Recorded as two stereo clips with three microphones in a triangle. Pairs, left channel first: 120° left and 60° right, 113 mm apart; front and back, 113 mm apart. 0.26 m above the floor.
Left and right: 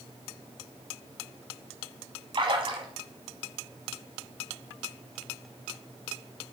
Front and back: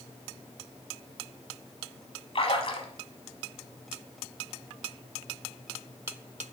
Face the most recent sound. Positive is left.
turn(degrees=-25)